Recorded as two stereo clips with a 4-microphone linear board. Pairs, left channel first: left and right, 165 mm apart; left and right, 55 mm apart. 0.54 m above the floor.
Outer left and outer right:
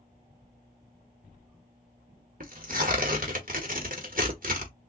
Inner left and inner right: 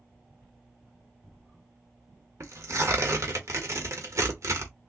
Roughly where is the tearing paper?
Right.